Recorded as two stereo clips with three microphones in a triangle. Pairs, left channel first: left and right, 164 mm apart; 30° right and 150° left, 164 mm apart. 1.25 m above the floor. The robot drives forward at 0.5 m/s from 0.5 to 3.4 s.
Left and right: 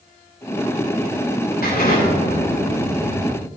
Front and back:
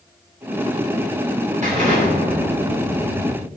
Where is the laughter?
No laughter in this recording.